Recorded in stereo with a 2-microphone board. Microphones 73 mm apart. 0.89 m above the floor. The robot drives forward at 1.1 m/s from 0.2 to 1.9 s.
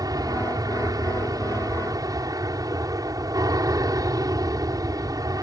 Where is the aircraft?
60° right (ahead or behind); by 5.4 s 55° right (ahead or behind).